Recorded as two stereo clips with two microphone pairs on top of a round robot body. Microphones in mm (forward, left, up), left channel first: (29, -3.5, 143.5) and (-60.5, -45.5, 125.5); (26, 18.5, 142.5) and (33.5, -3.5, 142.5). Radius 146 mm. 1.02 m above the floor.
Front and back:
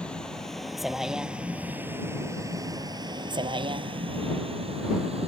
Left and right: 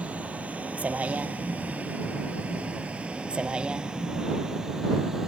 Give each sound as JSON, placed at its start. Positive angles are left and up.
{"t": 0.0, "sound": "a vehicle", "azimuth_deg": -55}